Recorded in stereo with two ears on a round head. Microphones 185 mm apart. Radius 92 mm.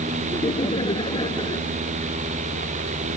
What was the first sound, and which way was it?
Laughter, 25° left (ahead or behind).